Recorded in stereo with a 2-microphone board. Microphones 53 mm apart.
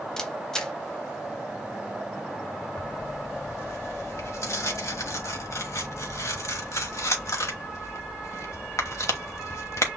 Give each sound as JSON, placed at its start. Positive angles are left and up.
{"t": 0.2, "sound": "a camera shutter", "side_deg": 10, "distance_m": 0.8}
{"t": 2.8, "sound": "tearing paper", "side_deg": 60, "distance_m": 1.1}